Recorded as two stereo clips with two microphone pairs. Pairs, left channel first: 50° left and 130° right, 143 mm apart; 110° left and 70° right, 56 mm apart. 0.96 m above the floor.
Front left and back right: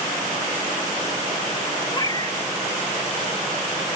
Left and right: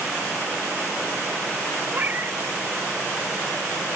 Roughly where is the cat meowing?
Ahead.